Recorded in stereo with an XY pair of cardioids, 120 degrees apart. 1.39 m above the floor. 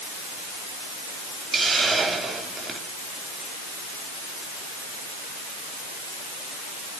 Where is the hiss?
30° right, 4 m.